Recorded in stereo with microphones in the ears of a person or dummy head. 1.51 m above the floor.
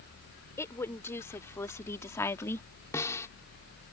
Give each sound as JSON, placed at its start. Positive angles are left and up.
{"t": 0.6, "sound": "a woman speaking", "side_deg": 20}
{"t": 2.9, "sound": "a snare drum", "side_deg": 15}